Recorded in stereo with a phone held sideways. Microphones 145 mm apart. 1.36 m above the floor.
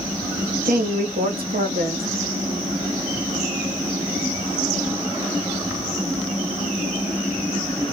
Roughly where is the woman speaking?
Right.